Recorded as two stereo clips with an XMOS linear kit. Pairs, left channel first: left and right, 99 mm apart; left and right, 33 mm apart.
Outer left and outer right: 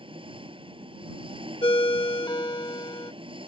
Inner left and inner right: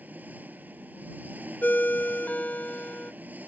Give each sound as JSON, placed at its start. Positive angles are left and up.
{"t": 0.0, "sound": "an engine running", "side_deg": -60}
{"t": 1.6, "sound": "a ringtone", "side_deg": 55}